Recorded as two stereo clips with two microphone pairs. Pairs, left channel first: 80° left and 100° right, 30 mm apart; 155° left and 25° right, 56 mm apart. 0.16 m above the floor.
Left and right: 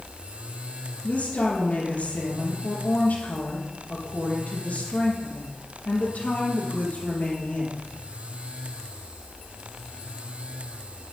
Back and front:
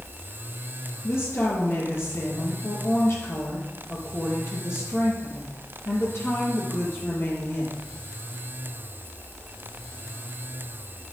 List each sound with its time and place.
1.0 s a woman speaking: 115° left, 3.5 m